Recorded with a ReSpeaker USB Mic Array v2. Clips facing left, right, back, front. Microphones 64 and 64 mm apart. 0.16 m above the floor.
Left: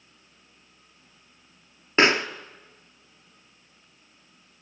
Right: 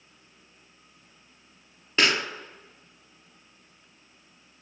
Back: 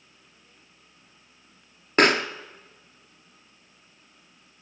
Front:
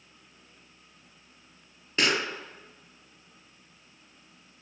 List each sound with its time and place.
2.0 s a pop: 145° left, 0.8 m